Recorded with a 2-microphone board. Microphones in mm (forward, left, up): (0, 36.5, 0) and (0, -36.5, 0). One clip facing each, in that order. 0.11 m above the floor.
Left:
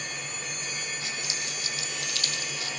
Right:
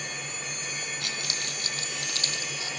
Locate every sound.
1.0 s keys jangling: 65° right (ahead or behind), 3 m; by 2.7 s 25° right (ahead or behind), 3 m